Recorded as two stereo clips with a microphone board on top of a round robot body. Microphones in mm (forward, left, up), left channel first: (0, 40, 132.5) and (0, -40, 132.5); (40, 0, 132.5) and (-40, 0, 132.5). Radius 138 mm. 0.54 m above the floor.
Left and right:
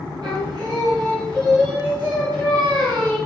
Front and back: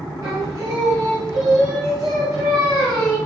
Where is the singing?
130° right, 5 m.